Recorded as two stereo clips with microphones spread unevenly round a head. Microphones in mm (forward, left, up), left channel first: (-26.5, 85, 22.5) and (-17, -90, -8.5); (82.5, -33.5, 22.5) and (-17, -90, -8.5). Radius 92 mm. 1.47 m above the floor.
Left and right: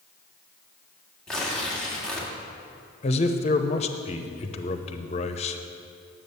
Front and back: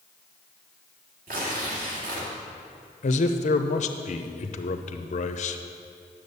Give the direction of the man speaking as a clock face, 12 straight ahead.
11 o'clock.